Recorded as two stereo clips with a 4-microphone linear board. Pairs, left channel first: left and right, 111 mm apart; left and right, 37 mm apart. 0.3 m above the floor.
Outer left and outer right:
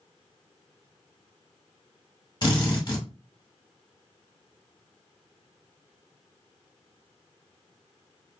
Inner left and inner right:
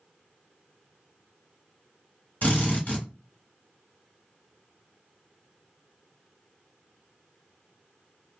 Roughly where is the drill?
Left.